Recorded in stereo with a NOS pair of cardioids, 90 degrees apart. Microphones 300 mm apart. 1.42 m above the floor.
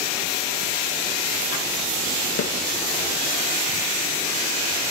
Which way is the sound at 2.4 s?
55° left.